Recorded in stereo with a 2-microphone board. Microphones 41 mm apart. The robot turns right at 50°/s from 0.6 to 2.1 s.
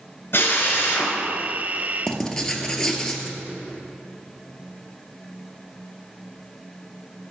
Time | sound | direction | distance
0.3 | a drill | 65° left (ahead or behind) | 1.9 m
2.1 | writing | 10° left (ahead or behind) | 0.7 m